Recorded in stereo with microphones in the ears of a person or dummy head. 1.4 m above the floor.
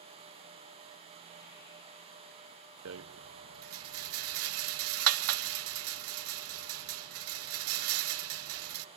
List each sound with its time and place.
2.9 s a rattle: 65° right (ahead or behind), 0.7 m